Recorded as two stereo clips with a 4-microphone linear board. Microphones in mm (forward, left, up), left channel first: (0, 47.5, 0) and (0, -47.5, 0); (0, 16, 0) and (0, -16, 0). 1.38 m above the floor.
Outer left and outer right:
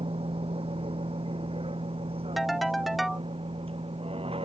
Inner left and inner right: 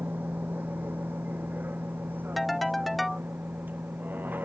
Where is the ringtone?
Centre (ahead or behind).